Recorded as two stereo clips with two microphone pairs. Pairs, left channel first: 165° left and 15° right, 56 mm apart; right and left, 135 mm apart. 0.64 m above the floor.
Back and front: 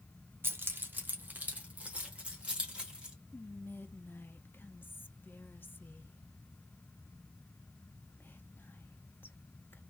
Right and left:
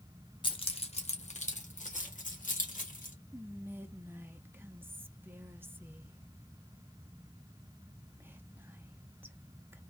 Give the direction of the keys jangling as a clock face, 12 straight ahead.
2 o'clock.